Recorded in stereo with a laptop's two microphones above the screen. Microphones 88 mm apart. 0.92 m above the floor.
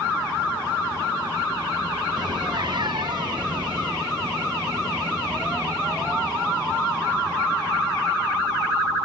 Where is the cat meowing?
55° right (ahead or behind); by 3.9 s 60° right (ahead or behind).